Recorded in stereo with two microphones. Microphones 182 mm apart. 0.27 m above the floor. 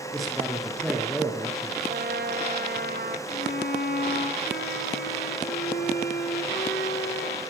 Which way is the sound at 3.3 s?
70° left (ahead or behind).